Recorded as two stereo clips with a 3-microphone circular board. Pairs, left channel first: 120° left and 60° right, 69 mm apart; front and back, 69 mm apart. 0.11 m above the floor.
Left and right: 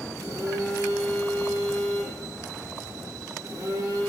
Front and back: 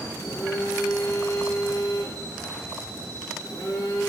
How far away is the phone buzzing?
About 1.0 m.